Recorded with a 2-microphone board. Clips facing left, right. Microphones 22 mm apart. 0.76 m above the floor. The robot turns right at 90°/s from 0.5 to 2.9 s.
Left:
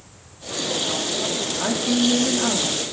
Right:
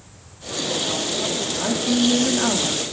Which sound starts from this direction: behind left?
A woman speaking, at 1.6 s.